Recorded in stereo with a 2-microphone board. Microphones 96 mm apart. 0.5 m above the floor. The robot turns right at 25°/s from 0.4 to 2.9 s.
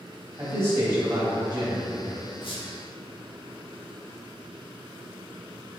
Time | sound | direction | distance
0.4 | a man speaking | 25° right (ahead or behind) | 1.1 m
2.4 | a squeak | 65° left (ahead or behind) | 0.7 m